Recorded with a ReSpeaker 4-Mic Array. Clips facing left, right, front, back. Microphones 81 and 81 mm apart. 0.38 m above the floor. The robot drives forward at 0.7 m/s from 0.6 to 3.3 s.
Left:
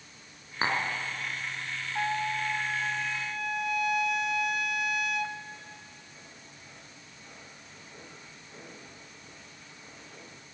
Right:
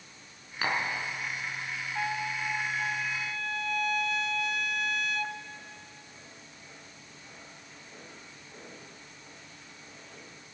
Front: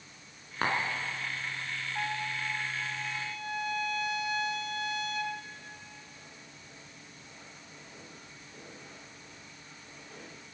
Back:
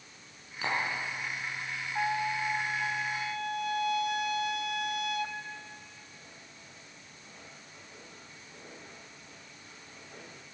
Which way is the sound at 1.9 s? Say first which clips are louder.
Left 3 dB, back 6 dB; 145° left.